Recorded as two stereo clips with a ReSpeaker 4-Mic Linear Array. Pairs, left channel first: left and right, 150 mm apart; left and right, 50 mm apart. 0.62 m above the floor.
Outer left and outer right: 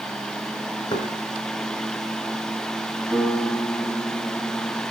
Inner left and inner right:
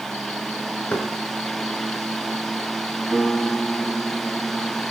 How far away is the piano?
About 7.5 m.